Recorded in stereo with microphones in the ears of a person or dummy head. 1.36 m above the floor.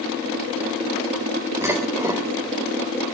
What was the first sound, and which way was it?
Dishes clattering, 10° right (ahead or behind).